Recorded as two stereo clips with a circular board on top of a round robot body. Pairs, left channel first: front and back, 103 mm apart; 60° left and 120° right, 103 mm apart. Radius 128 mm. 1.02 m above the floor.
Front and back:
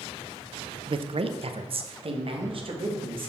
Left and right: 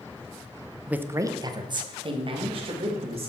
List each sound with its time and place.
0.9 s a man speaking: 160° left, 0.7 m; by 3.3 s 145° right, 2 m